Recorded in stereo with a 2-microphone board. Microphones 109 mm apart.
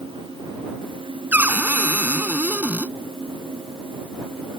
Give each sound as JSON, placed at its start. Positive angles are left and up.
{"t": 1.3, "sound": "a cupboard door", "side_deg": -15}